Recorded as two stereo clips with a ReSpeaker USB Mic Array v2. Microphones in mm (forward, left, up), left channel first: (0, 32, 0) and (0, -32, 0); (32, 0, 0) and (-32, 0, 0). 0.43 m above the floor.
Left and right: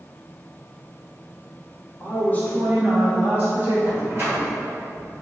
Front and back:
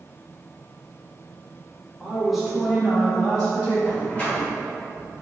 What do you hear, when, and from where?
2.0 s a woman speaking: 100° left, 1.1 m; by 3.8 s 80° right, 1.1 m
3.9 s a door slam: 60° right, 1.2 m